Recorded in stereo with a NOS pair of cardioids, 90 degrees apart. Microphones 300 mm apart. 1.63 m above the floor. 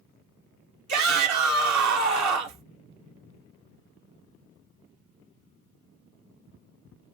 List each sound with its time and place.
0.9 s a shout: 65° right, 1.9 m